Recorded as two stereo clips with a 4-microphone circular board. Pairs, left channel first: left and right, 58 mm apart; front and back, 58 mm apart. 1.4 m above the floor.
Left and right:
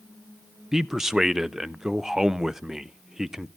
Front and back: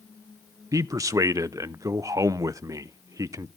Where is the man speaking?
170° right, 0.5 m.